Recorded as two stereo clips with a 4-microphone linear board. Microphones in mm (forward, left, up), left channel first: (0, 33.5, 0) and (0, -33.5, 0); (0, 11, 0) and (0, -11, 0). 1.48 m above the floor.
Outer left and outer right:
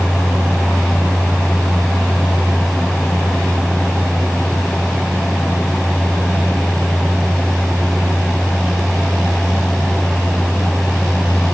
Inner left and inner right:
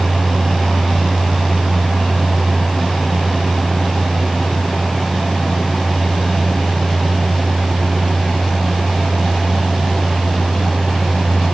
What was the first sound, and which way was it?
Only background noise.